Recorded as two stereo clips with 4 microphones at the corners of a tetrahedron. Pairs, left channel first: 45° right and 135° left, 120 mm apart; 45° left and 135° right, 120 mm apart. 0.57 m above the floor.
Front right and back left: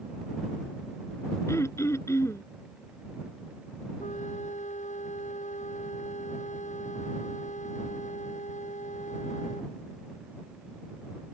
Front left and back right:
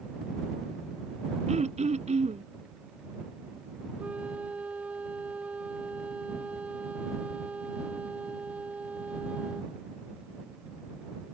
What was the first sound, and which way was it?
Throat clearing, 110° right.